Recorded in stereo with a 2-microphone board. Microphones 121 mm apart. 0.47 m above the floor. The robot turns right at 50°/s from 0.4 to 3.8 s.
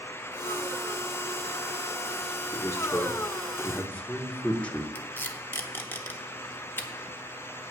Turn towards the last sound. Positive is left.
turn(degrees=20)  # may be behind; listen again after turning